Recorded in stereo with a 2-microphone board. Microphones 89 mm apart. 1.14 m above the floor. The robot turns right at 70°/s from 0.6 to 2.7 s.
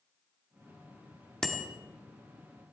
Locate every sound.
1.4 s a bicycle bell: 5° left (ahead or behind), 2 m; by 1.7 s 15° right (ahead or behind), 2 m